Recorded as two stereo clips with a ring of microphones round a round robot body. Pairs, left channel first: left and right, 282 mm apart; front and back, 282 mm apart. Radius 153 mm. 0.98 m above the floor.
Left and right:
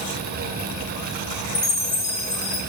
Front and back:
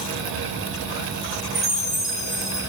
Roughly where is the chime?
Left.